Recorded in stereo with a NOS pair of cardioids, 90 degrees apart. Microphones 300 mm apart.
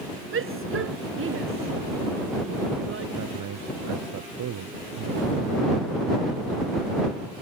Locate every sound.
0.3 s a shout: 45° right
3.2 s a man speaking: 70° right